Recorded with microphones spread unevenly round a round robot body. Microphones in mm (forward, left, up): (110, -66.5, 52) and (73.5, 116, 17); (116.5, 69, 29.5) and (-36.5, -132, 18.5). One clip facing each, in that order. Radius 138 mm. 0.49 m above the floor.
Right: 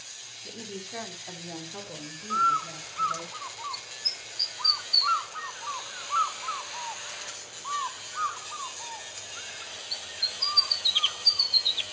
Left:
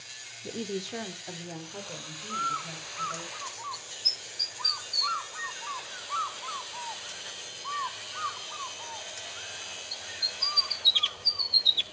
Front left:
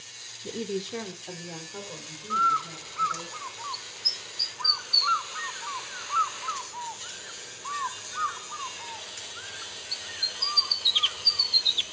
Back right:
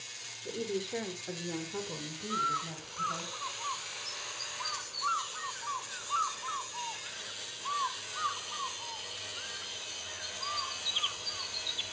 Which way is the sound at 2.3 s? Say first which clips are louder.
Right 5 dB, front left 2 dB; 20° left.